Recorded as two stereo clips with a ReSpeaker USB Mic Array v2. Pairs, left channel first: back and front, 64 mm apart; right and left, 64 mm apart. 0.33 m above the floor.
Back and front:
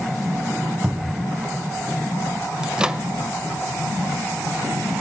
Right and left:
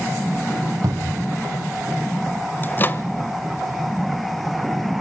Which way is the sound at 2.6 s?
70° right.